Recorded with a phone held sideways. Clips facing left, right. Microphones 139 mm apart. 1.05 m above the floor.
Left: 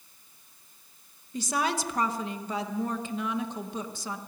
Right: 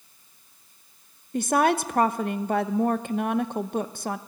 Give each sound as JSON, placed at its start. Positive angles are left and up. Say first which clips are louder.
{"t": 1.3, "sound": "a woman speaking", "louder": "right 8 dB", "side_deg": -60, "distance_m": 0.9}